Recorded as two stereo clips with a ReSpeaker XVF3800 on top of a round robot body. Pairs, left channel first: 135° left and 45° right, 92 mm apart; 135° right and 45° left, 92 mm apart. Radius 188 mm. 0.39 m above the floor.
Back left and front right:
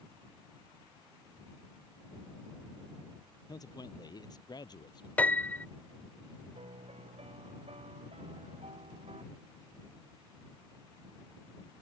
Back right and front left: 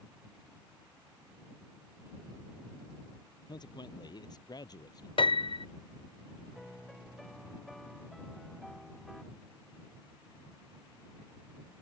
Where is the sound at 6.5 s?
45° right.